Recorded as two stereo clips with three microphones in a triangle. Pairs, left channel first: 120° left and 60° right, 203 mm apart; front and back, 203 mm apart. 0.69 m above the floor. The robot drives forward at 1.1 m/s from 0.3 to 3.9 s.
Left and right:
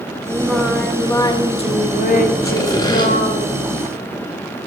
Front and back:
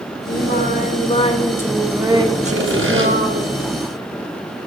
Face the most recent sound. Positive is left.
turn(degrees=-170)